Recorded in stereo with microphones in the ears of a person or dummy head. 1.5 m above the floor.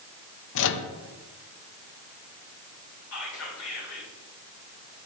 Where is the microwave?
65° left (ahead or behind), 0.8 m.